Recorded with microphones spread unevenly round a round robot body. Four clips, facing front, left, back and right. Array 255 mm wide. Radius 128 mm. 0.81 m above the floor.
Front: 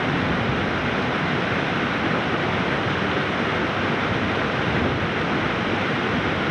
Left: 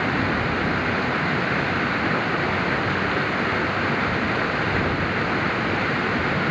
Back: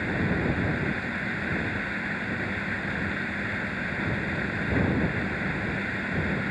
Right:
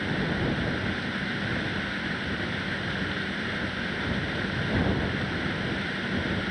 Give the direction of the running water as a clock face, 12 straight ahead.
11 o'clock.